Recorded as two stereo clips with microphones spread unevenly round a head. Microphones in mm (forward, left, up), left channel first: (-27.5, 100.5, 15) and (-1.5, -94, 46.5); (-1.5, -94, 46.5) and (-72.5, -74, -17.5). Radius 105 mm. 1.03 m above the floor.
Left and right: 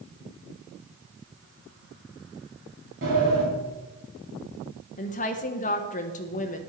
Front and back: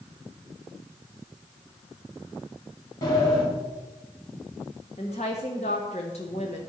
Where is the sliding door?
40° right, 3.5 m.